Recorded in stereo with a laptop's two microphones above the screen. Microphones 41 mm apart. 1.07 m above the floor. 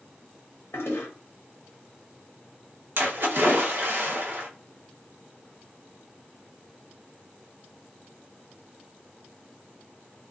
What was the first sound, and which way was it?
A toilet flushing, 75° left (ahead or behind).